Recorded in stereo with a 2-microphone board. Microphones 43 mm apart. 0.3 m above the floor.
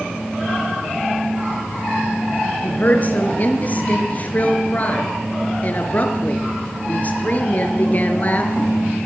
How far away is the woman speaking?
About 4 m.